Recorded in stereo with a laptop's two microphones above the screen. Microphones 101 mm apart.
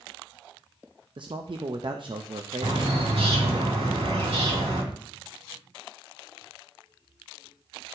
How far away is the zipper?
No zipper in this recording.